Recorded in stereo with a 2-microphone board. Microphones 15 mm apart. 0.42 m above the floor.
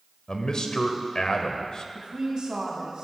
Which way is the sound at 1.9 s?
70° right (ahead or behind).